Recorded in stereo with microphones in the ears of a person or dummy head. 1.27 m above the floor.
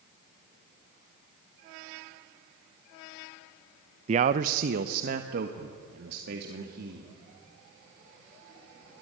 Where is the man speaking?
40° right (ahead or behind), 0.5 m; by 7.2 s 60° right (ahead or behind), 2.5 m.